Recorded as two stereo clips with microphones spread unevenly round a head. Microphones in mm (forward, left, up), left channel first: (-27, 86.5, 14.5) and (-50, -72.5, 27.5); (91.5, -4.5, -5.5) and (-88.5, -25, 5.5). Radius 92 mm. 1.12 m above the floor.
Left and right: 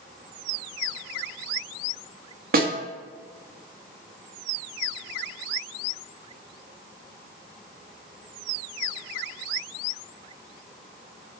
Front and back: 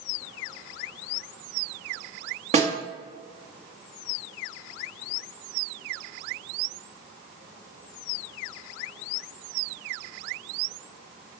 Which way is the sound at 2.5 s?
125° right.